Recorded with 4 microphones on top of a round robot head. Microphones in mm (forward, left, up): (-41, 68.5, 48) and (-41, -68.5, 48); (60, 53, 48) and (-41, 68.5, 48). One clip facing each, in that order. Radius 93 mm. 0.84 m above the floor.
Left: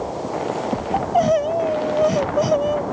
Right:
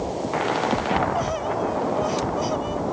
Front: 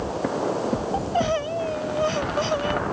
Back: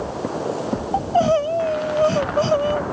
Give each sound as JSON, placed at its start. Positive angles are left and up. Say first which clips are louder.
{"t": 0.9, "sound": "crying", "louder": "left 6 dB, back 9 dB", "azimuth_deg": 120}